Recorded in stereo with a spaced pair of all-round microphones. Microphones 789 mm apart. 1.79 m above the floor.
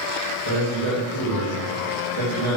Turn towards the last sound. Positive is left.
turn(degrees=-35)  # may be behind; listen again after turning